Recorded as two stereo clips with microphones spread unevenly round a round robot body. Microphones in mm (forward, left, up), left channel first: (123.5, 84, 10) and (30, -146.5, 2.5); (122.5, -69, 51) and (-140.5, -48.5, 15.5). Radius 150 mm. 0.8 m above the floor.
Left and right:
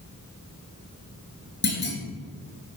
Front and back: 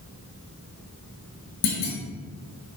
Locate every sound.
1.6 s a clunk: 25° left, 3.5 m